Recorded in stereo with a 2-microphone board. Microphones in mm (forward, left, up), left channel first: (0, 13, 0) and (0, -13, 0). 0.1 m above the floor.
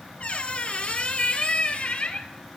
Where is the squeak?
50° left (ahead or behind), 0.7 m.